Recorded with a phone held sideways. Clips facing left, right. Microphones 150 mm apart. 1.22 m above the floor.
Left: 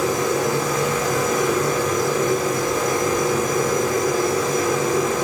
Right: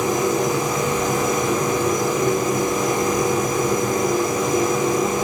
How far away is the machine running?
About 3.5 m.